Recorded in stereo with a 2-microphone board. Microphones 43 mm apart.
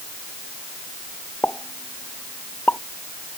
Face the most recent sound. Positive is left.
turn(degrees=50)  # may be behind; listen again after turning